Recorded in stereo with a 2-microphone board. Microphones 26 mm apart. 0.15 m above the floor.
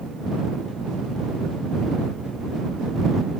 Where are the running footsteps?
I don't hear running footsteps.